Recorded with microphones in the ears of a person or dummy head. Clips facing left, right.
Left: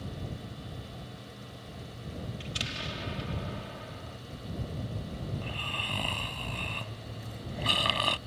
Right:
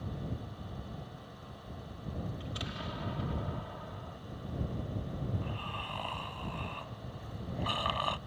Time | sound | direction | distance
2.4 | an explosion | 35° left (ahead or behind) | ?
5.3 | snoring | 30° left (ahead or behind) | ?